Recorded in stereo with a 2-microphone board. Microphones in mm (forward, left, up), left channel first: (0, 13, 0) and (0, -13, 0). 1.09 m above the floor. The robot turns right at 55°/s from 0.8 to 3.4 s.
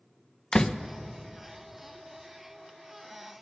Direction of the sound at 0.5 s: 20° left (ahead or behind).